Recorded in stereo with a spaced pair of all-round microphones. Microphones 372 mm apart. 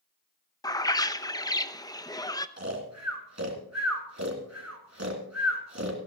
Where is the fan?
No fan in this recording.